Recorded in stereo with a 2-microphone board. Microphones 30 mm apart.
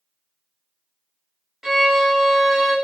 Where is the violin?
15° right (ahead or behind), 0.7 m.